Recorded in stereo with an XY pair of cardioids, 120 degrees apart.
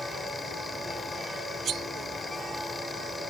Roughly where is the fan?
Ahead left.